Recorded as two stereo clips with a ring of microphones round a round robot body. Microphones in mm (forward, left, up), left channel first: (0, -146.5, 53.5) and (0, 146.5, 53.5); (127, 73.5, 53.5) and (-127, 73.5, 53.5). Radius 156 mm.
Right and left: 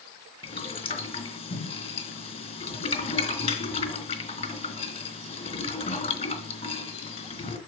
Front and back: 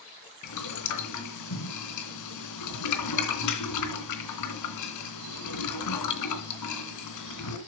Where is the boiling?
20° right, 2.5 m.